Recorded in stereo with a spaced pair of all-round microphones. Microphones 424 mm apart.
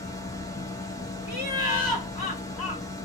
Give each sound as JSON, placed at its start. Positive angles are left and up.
{"t": 0.0, "sound": "a machine running", "side_deg": 10, "distance_m": 0.9}
{"t": 1.3, "sound": "laughter", "side_deg": 55, "distance_m": 1.0}